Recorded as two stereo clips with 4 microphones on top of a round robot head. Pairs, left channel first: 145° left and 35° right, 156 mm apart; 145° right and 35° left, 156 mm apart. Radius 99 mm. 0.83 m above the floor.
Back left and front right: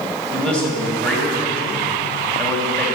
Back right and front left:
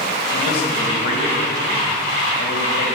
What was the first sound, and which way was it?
A man speaking, 135° right.